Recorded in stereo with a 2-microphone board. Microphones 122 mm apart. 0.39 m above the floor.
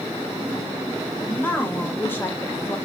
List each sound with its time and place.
1.2 s a woman speaking: 15° left (ahead or behind), 1.2 m